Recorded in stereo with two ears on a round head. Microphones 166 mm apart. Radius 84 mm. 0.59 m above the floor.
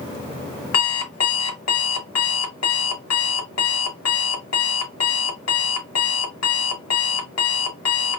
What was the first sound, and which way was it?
An alarm clock, 85° left.